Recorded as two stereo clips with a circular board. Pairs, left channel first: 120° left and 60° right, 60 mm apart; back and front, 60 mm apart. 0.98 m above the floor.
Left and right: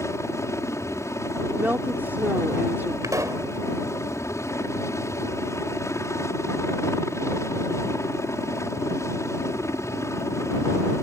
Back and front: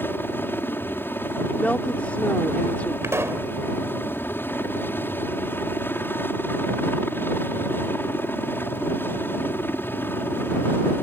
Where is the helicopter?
135° left.